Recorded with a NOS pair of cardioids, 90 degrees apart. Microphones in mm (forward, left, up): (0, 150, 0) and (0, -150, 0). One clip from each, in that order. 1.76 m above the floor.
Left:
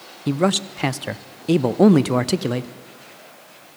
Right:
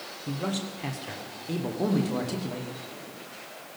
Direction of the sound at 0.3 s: 65° left.